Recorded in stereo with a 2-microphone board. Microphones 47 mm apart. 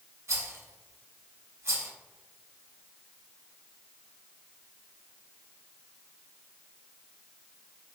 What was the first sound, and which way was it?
A rattle, 70° right (ahead or behind).